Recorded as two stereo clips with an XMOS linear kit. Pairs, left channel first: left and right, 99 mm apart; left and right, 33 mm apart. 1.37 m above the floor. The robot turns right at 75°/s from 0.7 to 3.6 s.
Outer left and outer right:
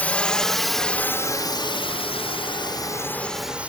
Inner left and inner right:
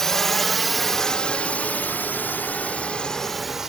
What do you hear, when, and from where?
0.0 s a drone: 15° left (ahead or behind); by 3.7 s 10° right (ahead or behind)